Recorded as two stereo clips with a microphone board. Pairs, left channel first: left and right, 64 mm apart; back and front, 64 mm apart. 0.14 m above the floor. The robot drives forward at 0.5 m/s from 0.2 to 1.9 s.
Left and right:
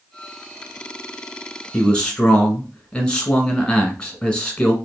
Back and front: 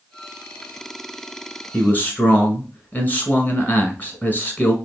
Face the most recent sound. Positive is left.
turn(degrees=155)